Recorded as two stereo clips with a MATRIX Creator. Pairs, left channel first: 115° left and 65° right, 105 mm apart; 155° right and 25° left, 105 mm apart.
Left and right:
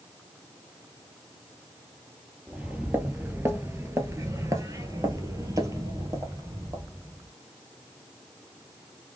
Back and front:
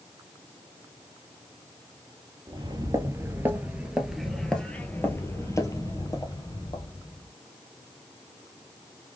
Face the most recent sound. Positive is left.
turn(degrees=-125)